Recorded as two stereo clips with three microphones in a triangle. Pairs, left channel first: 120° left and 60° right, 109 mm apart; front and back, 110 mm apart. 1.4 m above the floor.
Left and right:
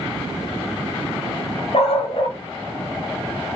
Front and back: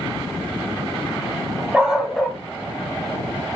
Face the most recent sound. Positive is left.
turn(degrees=65)